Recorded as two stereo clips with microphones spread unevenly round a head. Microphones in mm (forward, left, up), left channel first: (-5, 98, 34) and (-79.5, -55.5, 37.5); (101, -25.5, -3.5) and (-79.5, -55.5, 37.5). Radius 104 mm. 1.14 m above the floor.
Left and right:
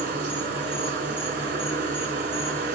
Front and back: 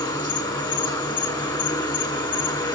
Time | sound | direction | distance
0.0 | an insect | 60° right | 3.5 m